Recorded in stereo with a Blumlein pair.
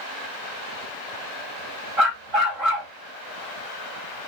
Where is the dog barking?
25° right, 1.6 m.